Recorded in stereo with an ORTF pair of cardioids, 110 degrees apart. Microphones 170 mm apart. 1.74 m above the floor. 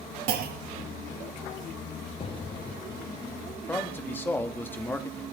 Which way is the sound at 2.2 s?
30° left.